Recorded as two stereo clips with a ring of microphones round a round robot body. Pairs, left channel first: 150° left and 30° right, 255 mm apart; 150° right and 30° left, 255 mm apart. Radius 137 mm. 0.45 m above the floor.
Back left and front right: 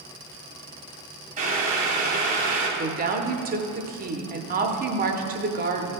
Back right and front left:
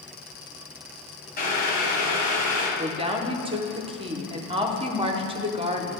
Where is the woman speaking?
20° right, 0.8 m.